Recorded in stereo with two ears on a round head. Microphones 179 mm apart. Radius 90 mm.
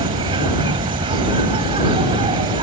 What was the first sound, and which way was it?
An insect, 30° right (ahead or behind).